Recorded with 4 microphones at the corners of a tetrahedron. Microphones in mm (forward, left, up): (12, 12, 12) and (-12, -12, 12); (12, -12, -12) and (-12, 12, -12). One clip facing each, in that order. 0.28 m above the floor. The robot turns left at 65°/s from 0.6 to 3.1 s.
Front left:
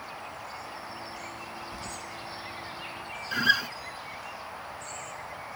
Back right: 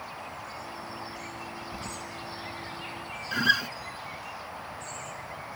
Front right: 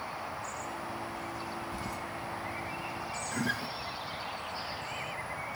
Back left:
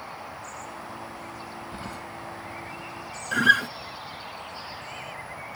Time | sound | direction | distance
1.7 | keys jangling | 155° left | ?
3.3 | a guitar | 135° left | ?